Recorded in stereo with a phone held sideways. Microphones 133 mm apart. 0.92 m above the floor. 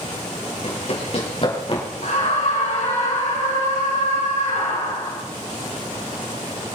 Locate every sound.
0.6 s running footsteps: 55° left (ahead or behind), 5 m; by 1.8 s 45° left (ahead or behind), 5 m
2.0 s a scream: 80° left, 6 m